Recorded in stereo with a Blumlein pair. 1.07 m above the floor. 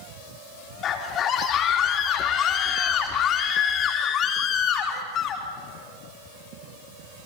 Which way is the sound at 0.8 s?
30° left.